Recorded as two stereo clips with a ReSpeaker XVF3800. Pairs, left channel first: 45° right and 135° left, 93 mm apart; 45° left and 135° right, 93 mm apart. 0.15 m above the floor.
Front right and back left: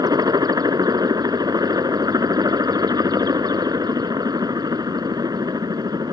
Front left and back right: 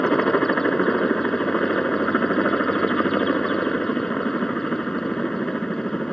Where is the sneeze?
No sneeze in this recording.